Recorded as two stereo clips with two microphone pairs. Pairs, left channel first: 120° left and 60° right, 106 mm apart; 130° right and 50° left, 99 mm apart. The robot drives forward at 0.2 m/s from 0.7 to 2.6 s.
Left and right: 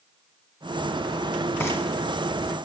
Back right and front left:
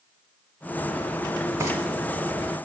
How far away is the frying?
About 0.7 m.